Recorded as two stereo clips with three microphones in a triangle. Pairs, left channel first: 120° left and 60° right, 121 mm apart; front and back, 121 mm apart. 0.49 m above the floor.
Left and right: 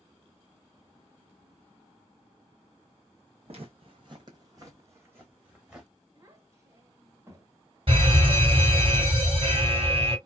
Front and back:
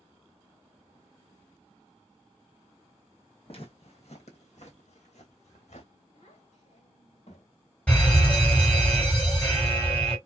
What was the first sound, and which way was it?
Footsteps, 30° right.